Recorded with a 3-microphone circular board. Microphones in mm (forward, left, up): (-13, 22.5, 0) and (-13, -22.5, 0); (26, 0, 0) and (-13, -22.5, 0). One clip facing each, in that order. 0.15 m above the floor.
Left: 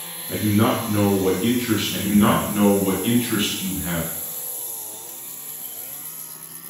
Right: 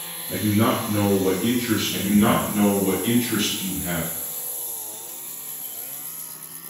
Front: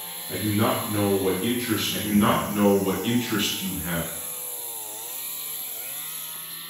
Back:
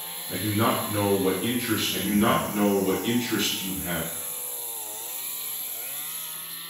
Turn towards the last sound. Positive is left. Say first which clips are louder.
# left 1 dB, front 1 dB
turn(degrees=75)